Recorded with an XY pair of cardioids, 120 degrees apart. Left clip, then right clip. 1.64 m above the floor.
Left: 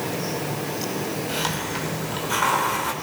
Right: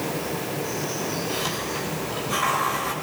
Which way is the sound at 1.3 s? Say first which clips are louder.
Left 1 dB; 60° left.